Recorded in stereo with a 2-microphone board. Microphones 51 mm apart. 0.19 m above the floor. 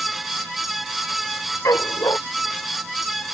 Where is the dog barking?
80° left.